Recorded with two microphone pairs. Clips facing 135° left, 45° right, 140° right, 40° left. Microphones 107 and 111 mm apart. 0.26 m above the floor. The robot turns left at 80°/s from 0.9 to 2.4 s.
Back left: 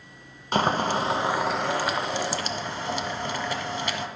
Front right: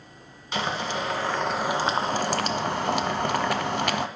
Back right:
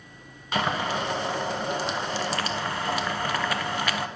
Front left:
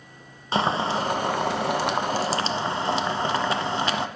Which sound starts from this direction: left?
Boiling, at 0.5 s.